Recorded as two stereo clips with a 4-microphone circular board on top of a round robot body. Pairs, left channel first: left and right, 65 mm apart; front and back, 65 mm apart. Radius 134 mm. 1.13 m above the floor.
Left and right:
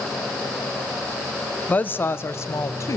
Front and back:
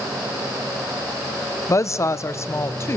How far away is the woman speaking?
About 0.9 m.